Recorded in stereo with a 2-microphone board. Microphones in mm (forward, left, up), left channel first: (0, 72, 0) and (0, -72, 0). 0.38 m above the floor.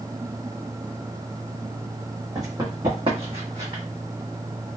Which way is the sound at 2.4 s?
25° right (ahead or behind).